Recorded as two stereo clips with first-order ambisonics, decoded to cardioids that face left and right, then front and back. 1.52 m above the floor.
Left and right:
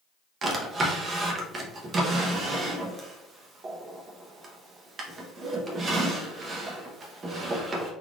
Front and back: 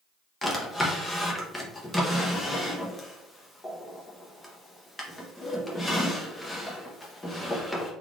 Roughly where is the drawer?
Right.